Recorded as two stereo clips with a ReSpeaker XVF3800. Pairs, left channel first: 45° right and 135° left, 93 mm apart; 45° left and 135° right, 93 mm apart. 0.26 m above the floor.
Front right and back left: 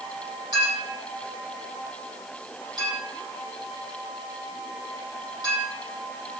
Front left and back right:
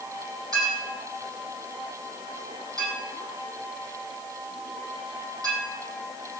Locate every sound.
0.5 s a clink: 175° left, 7 m